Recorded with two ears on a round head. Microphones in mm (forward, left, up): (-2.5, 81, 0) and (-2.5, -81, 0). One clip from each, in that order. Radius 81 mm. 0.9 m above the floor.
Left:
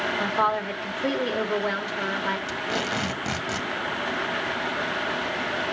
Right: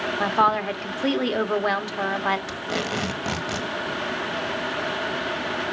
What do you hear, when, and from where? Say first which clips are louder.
0.2 s a woman speaking: right 6 dB; 30° right (ahead or behind), 1.4 m
2.5 s tape being pulled: even; centre (ahead or behind), 1.2 m